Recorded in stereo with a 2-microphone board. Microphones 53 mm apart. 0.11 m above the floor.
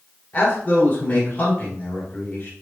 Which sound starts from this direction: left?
A man speaking, at 0.3 s.